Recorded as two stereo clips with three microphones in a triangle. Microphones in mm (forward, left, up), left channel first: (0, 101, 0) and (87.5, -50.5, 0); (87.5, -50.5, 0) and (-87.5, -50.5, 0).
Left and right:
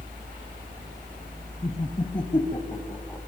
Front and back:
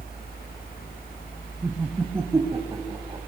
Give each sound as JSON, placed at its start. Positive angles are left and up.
{"t": 1.6, "sound": "laughter", "azimuth_deg": 100, "distance_m": 1.5}